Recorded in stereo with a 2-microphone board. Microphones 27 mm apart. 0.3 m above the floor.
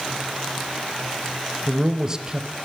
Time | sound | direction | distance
1.7 | a man speaking | 25° right (ahead or behind) | 1.0 m